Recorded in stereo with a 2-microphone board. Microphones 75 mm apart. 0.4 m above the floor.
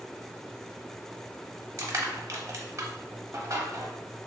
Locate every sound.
1.8 s crushing: 40° right (ahead or behind), 0.9 m